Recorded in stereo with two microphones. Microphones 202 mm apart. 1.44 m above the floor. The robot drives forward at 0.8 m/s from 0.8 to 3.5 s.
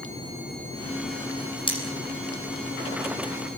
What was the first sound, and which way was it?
Cutlery clinking, 25° left (ahead or behind).